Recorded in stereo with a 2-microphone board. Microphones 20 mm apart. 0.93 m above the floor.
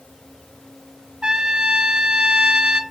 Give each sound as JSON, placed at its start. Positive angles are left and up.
{"t": 1.2, "sound": "a trumpet", "side_deg": -35, "distance_m": 0.7}